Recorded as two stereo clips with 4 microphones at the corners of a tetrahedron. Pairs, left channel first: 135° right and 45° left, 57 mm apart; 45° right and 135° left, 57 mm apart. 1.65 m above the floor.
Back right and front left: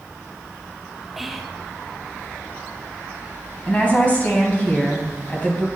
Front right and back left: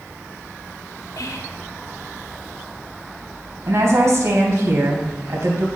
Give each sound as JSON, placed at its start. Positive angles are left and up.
{"t": 1.2, "sound": "whispering", "azimuth_deg": -40, "distance_m": 0.7}
{"t": 3.7, "sound": "a woman speaking", "azimuth_deg": 165, "distance_m": 2.0}